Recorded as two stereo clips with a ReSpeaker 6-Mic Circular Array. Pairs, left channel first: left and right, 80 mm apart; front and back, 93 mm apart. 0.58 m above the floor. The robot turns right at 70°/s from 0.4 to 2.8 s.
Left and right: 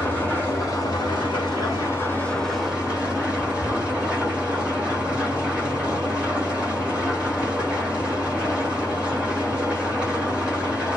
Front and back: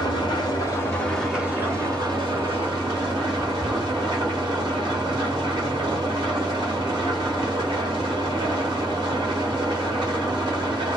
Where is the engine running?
30° left, 1.4 m; by 11.0 s 165° right, 1.4 m.